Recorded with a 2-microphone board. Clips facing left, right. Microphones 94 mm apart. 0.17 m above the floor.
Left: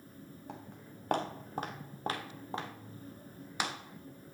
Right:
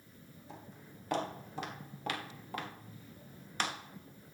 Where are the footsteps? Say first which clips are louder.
Left 2 dB; 65° left (ahead or behind), 3 m; by 3.7 s 10° left (ahead or behind), 3 m.